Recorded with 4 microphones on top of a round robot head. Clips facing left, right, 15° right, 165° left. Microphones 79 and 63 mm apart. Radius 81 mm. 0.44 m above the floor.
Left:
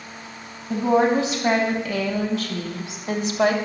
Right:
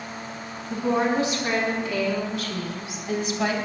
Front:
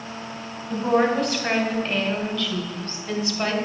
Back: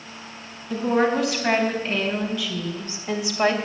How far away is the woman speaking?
About 4 m.